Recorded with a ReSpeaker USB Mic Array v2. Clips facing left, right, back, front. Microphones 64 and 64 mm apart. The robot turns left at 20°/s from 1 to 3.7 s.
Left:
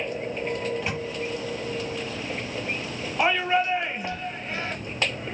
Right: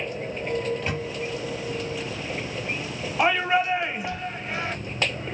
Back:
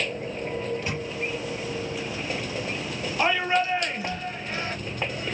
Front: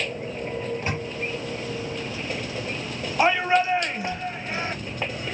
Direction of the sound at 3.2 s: 5° left.